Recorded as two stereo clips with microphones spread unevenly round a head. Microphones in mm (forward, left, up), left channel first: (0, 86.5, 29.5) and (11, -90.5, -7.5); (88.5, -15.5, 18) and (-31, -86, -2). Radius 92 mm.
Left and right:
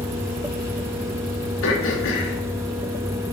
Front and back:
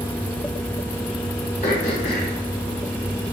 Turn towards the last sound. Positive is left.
turn(degrees=85)